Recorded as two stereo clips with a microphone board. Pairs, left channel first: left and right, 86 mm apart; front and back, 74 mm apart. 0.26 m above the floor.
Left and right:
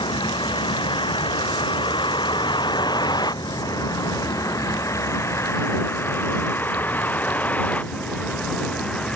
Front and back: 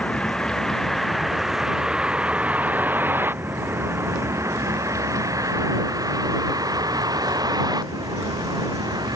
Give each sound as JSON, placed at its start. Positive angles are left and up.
{"t": 0.0, "sound": "a vehicle", "azimuth_deg": 75}